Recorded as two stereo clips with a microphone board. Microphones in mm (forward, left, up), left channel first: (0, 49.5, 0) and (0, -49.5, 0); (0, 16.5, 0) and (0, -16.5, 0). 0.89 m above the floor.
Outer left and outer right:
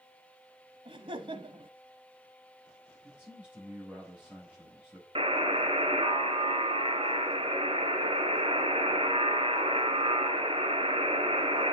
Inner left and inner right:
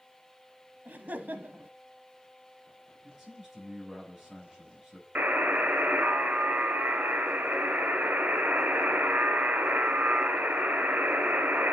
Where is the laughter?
65° right (ahead or behind), 0.9 m.